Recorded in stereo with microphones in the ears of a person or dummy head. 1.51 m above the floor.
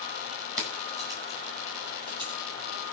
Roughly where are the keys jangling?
Centre.